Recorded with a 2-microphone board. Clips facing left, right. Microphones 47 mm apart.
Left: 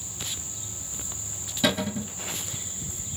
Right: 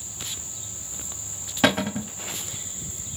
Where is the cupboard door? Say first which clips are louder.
Right 4 dB; 60° right (ahead or behind), 0.6 m.